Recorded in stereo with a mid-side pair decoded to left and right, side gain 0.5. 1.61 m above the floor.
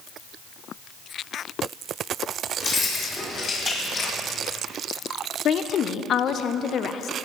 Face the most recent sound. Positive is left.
turn(degrees=55)